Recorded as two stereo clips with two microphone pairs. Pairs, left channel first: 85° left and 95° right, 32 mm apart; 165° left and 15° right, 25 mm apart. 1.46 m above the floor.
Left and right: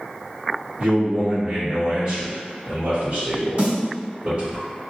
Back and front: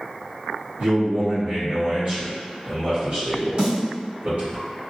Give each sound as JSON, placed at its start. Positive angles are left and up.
{"t": 0.8, "sound": "a man speaking", "azimuth_deg": -45, "distance_m": 1.9}
{"t": 3.6, "sound": "a snare drum", "azimuth_deg": -65, "distance_m": 1.8}